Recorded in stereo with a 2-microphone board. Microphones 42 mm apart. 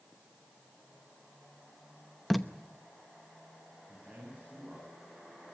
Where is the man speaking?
10° right (ahead or behind), 8 m.